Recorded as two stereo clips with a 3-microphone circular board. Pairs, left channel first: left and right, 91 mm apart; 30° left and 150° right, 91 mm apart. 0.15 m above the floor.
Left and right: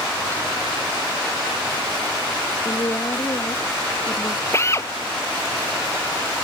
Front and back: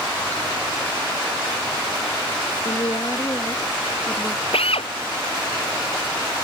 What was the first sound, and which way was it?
A woman speaking, 50° left.